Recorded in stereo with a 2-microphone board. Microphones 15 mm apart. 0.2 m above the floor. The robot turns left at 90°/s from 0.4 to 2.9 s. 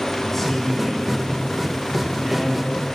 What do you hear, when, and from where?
0.2 s a man speaking: 20° left (ahead or behind), 1.0 m; by 2.8 s 15° right (ahead or behind), 1.0 m